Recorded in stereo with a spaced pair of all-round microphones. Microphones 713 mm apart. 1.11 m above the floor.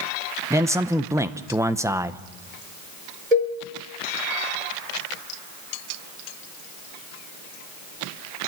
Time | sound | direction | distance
0.5 | a man speaking | 5° right (ahead or behind) | 0.8 m
3.3 | a cowbell | 60° right (ahead or behind) | 3.5 m